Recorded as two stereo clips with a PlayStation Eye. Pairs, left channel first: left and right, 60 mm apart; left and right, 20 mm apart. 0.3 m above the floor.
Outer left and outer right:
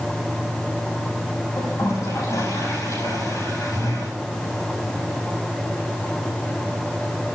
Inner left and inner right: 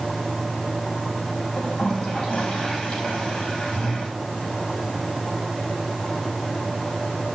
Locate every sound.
1.6 s a toilet flushing: 65° left (ahead or behind), 8.5 m